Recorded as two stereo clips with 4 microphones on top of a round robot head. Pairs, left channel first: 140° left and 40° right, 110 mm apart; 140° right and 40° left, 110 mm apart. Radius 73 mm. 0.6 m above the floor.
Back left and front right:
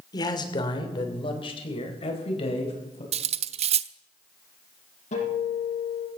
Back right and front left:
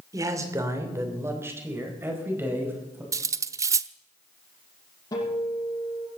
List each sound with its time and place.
0.1 s a man speaking: 95° left, 2.5 m; by 3.0 s 110° left, 5 m
3.1 s cutlery clinking: 20° right, 0.7 m
5.1 s a guitar: 160° left, 7 m